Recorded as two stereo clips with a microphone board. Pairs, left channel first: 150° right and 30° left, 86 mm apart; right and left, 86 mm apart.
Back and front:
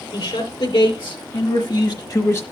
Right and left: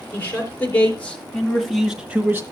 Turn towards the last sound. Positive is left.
turn(degrees=150)